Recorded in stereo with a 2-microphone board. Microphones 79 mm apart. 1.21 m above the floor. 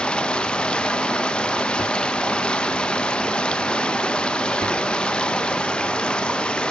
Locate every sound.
0.0 s running water: 15° left (ahead or behind), 0.9 m